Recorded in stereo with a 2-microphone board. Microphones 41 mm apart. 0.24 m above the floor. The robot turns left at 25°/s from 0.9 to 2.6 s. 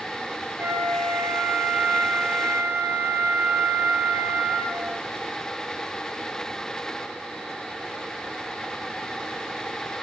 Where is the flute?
60° right, 1.6 m; by 5.0 s 100° right, 1.6 m.